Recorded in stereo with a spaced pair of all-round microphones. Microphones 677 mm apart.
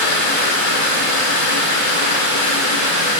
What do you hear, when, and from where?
0.0 s running water: 60° left (ahead or behind), 1.0 m